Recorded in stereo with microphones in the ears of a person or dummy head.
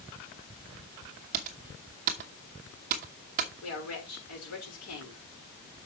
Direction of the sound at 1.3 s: 40° right (ahead or behind).